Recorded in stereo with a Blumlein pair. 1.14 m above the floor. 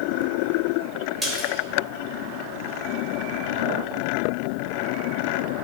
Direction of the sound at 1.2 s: Straight ahead.